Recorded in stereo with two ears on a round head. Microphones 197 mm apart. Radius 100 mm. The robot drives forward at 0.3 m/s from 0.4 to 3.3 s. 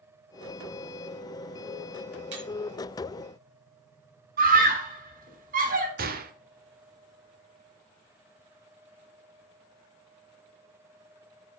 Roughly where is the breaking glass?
Right.